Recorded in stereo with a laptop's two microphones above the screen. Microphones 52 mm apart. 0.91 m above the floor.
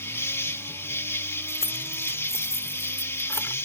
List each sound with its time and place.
0.0 s an insect: 60° left (ahead or behind)
1.5 s keys jangling: 65° left (ahead or behind)